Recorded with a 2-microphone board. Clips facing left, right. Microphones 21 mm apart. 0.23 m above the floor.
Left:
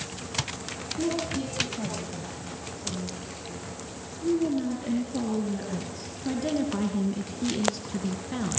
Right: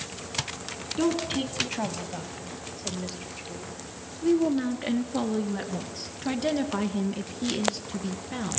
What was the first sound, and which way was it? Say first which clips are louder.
A woman speaking: right 3 dB; 70° right (ahead or behind).